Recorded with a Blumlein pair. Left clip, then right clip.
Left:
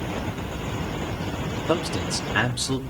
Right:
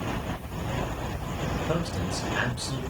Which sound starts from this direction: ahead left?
A man speaking, at 1.7 s.